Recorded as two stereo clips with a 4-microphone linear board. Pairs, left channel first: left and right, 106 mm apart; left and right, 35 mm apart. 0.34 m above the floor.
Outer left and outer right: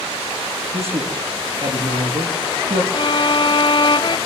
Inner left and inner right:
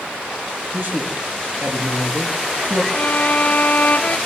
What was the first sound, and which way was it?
A man speaking, 70° right (ahead or behind).